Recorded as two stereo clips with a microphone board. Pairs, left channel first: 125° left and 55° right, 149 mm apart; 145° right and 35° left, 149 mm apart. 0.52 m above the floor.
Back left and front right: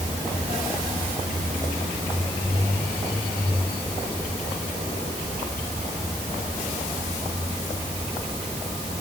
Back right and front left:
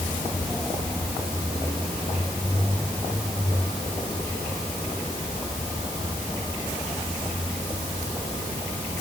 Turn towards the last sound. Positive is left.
No sound to turn to.